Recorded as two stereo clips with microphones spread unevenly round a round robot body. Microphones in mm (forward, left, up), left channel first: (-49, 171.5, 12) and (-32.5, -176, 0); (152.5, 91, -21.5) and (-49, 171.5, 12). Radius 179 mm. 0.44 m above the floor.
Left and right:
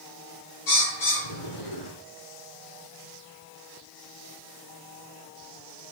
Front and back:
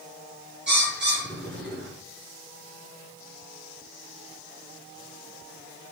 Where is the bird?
120° left, 6 m.